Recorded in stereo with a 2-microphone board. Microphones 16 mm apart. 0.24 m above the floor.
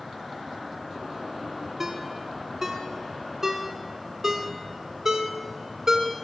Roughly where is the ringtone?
Right.